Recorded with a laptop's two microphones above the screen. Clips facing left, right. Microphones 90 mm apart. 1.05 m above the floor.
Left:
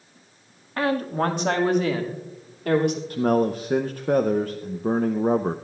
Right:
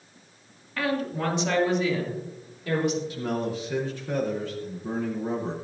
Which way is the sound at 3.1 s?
55° left (ahead or behind).